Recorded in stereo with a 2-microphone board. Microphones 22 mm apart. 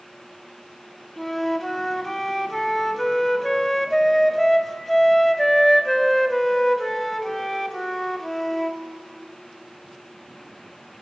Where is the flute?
10° left (ahead or behind), 0.6 m.